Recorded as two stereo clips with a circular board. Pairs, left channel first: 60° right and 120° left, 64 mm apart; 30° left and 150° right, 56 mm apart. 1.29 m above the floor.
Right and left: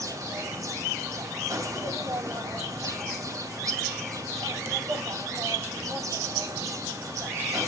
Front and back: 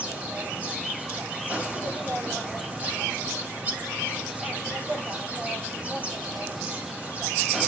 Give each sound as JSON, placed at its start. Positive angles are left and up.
{"t": 0.0, "sound": "an insect", "azimuth_deg": 150, "distance_m": 2.5}